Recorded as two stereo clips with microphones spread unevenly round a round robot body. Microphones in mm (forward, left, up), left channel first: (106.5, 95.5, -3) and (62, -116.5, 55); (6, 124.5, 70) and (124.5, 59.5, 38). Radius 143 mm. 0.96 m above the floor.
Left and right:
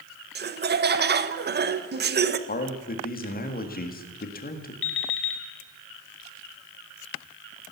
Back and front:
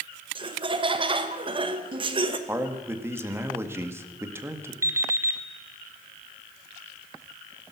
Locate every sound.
0.3 s laughter: 55° right, 1.1 m
2.5 s a man speaking: 40° left, 1.8 m
4.8 s an alarm clock: 45° left, 1.4 m